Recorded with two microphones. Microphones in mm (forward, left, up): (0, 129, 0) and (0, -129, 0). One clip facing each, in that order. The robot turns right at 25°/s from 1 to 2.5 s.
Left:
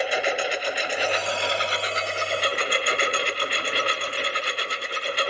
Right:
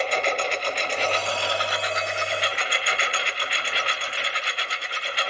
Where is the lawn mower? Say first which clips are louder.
Left 1 dB; 10° left; by 5.3 s 45° left.